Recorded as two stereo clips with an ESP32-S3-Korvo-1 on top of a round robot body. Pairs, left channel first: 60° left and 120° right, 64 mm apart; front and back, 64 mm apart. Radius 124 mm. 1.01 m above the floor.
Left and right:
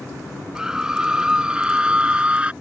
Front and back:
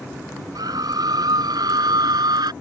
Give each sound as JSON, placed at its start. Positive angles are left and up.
{"t": 0.6, "sound": "a scream", "azimuth_deg": 160}